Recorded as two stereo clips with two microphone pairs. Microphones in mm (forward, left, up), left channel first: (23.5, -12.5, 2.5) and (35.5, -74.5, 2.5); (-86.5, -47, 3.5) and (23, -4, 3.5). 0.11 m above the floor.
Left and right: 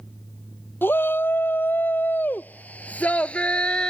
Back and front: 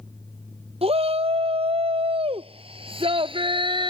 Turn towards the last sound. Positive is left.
turn(degrees=25)